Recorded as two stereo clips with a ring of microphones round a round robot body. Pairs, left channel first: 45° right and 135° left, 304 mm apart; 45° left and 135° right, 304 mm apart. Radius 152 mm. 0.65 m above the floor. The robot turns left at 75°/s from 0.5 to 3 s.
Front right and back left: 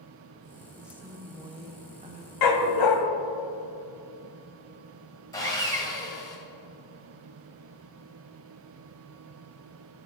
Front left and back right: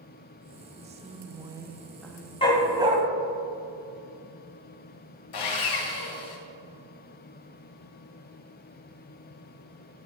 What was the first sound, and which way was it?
A woman speaking, 140° right.